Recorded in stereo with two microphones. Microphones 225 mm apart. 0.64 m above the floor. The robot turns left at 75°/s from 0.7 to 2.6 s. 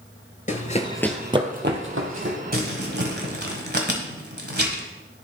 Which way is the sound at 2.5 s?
40° right (ahead or behind).